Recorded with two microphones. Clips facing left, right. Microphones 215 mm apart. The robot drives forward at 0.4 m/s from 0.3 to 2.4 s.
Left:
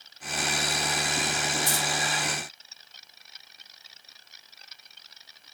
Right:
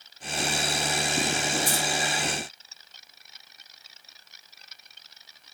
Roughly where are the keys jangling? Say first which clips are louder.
Right 2 dB; right.